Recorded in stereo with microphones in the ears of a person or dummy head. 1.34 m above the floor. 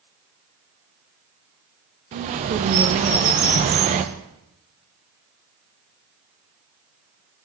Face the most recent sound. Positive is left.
turn(degrees=-40)  # may be behind; listen again after turning